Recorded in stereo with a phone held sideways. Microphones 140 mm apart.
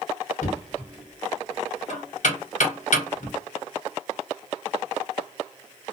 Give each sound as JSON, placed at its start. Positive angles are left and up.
{"t": 0.4, "sound": "knocking", "side_deg": 65, "distance_m": 1.1}